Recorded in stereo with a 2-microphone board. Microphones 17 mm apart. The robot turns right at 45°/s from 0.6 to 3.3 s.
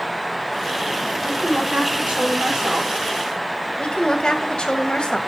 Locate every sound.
1.2 s a woman speaking: 125° right, 8 m; by 3.0 s 45° right, 8 m
3.8 s a woman speaking: 70° left (ahead or behind), 2 m